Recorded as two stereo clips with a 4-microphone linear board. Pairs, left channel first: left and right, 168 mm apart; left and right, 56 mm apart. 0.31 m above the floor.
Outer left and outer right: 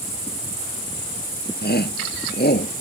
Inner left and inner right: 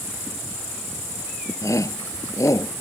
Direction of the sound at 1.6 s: 80° left.